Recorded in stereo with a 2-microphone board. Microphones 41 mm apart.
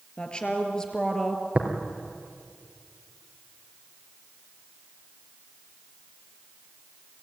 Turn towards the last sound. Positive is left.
turn(degrees=-30)  # may be behind; listen again after turning